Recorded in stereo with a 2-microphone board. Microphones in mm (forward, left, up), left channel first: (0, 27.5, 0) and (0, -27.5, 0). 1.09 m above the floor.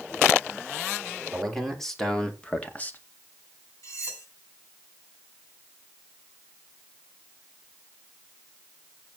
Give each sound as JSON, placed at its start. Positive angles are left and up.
{"t": 1.3, "sound": "a man speaking", "side_deg": 0, "distance_m": 3.5}
{"t": 3.8, "sound": "cutlery clinking", "side_deg": 70, "distance_m": 5.5}